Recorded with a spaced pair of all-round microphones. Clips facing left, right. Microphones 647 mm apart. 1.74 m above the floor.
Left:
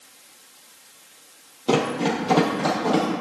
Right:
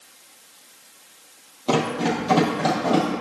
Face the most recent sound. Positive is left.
turn(degrees=-10)  # may be behind; listen again after turning